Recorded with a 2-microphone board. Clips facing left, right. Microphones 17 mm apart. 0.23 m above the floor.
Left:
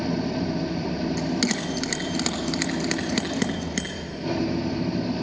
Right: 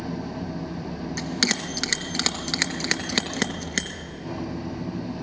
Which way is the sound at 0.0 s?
40° left (ahead or behind).